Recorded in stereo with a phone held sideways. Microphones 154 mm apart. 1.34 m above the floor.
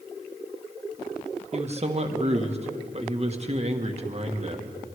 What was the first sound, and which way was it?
A man speaking, 45° right (ahead or behind).